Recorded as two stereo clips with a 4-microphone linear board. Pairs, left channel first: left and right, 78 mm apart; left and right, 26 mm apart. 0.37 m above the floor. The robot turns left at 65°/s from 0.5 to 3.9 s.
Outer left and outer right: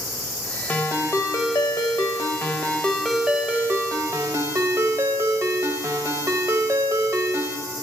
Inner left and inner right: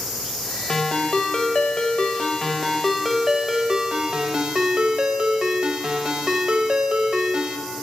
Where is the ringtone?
155° left, 0.8 m; by 7.6 s 55° right, 0.8 m.